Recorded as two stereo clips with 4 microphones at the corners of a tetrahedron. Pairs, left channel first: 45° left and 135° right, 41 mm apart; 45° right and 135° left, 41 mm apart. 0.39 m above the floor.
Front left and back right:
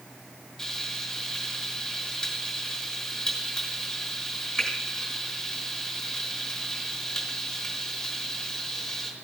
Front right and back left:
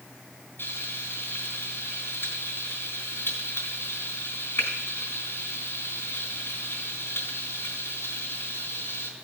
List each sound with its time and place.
0.6 s frying: 35° right, 3.5 m